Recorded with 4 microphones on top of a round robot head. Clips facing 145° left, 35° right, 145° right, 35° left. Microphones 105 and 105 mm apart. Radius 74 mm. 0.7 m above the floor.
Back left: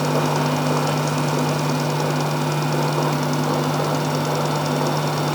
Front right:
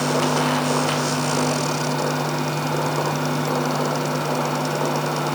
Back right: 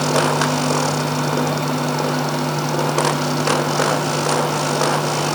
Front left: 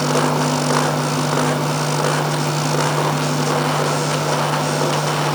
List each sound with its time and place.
Only background noise.